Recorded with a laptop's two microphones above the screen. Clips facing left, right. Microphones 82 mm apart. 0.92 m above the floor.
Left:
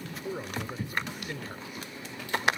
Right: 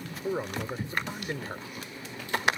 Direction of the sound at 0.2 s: 30° right (ahead or behind).